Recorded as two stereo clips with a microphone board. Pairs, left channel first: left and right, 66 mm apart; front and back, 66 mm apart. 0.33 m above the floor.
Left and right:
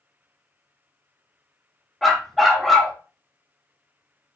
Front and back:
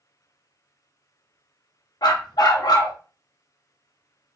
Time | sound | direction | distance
2.0 | a dog barking | straight ahead | 0.9 m